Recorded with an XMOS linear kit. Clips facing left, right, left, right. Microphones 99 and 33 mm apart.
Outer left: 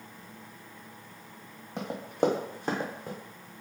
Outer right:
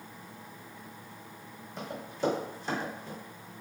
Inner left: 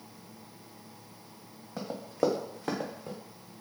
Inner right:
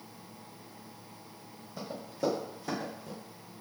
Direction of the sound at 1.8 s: 65° left (ahead or behind).